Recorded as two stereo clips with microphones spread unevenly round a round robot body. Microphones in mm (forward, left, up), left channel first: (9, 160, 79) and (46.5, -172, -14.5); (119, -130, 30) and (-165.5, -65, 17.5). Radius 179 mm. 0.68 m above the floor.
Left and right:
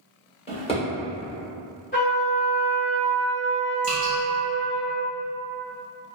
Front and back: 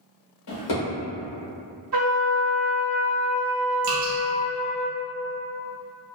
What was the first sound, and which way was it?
A drawer, 25° left.